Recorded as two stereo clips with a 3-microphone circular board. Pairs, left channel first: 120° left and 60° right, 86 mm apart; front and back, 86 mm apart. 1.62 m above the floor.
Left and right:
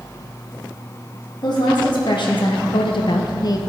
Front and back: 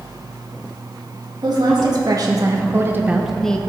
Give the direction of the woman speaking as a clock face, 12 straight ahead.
7 o'clock.